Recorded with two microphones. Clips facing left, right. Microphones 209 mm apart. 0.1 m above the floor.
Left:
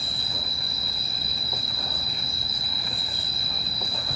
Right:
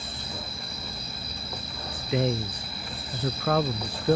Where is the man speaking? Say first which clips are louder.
Right 14 dB; 80° right.